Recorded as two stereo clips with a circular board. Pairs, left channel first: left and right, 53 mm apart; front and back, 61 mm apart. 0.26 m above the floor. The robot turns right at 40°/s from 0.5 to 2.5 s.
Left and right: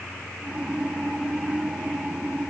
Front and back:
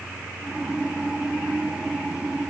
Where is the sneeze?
I don't hear a sneeze.